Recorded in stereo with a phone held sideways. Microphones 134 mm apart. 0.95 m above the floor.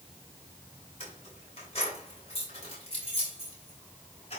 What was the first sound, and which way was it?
Keys jangling, 50° left (ahead or behind).